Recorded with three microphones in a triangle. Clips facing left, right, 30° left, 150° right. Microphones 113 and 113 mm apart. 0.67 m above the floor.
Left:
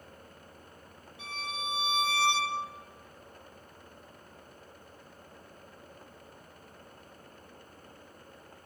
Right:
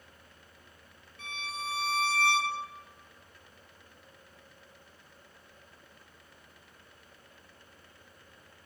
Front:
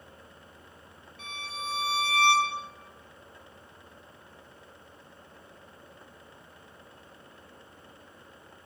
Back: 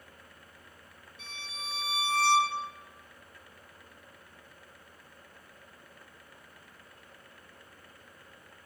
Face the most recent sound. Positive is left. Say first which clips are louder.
# left 1 dB, front 7 dB
turn(degrees=15)